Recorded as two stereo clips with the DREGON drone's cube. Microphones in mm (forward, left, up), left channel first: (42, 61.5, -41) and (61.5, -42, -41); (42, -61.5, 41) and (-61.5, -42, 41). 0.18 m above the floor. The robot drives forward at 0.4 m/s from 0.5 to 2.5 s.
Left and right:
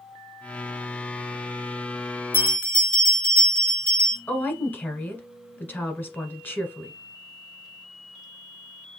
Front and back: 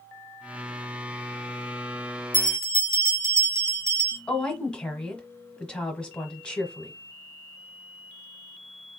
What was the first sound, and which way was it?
A bell, 160° left.